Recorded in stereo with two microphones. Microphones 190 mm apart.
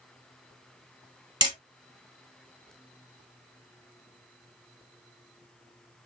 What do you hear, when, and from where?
1.4 s hammering: 20° right (ahead or behind), 0.9 m